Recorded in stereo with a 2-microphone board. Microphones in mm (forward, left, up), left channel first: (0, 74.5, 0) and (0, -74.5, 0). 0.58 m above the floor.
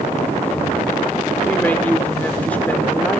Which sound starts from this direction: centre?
A woman speaking, at 1.4 s.